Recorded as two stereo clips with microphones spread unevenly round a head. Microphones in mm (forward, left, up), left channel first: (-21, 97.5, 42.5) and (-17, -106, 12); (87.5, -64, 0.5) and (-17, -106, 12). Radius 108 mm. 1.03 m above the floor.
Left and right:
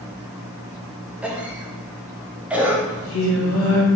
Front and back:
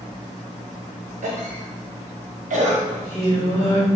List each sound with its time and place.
1.2 s a cough: 170° right, 1.3 m
2.9 s singing: 95° left, 1.5 m